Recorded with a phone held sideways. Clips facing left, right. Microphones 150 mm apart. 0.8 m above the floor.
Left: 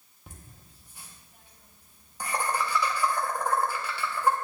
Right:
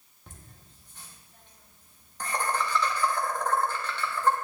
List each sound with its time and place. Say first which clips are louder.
0.3 s laughter: left 1 dB; 10° left (ahead or behind), 1.4 m